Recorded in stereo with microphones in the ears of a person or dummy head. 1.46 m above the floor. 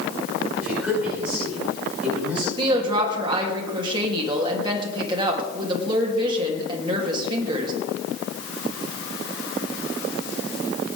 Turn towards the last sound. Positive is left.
turn(degrees=-30)  # may be behind; listen again after turning